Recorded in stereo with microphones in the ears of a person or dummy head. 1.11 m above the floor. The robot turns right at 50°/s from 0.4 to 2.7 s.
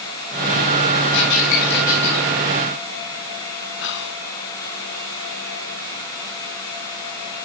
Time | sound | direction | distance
1.1 | a squeak | 75° left (ahead or behind) | 5.5 m
3.8 | whispering | 55° left (ahead or behind) | 1.0 m